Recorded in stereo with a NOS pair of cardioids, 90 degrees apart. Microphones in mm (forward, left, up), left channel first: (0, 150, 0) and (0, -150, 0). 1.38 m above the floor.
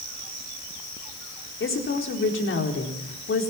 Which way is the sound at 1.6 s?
40° left.